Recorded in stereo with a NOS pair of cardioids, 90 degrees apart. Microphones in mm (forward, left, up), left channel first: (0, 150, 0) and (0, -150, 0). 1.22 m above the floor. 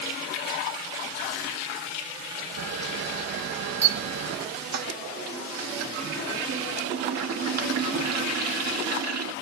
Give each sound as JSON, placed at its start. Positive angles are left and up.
{"t": 2.6, "sound": "a camera shutter", "azimuth_deg": -55, "distance_m": 1.6}
{"t": 4.7, "sound": "a toilet flushing", "azimuth_deg": -55, "distance_m": 1.5}